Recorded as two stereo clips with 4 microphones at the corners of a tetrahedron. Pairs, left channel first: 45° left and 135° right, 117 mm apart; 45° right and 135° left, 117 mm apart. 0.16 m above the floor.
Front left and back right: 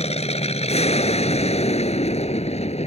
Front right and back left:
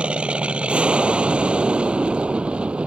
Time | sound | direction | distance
0.0 | an aircraft | 55° left | ?